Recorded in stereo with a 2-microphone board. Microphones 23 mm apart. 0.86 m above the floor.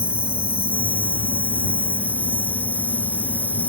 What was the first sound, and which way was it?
An insect, 80° right.